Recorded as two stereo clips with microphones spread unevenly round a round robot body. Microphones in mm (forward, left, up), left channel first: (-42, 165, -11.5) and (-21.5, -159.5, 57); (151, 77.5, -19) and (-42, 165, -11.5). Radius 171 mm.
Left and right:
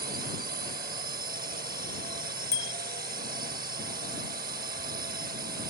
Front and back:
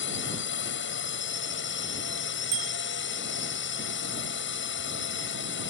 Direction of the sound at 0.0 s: 20° right.